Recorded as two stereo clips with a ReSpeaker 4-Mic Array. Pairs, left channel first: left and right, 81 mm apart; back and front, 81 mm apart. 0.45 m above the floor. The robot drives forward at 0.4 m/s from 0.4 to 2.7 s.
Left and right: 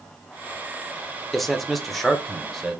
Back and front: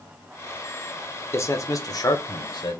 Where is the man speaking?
175° left, 0.8 m; by 2.8 s straight behind, 1.2 m.